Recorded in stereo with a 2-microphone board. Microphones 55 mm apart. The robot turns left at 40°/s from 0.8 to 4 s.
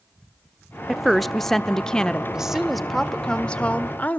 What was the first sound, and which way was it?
A woman speaking, 5° right (ahead or behind).